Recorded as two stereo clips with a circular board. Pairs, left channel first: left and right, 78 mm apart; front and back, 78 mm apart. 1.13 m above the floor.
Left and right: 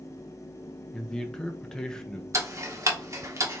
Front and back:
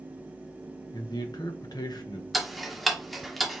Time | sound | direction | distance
0.9 | a man speaking | 10° left | 0.8 m
2.3 | ticking | 90° right | 0.8 m